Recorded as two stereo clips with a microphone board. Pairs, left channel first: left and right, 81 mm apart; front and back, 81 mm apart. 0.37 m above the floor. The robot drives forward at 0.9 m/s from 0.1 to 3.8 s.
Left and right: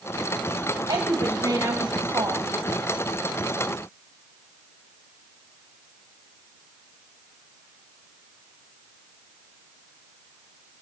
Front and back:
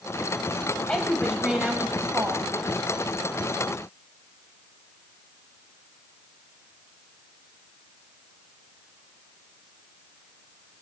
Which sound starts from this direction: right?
A woman speaking, at 0.9 s.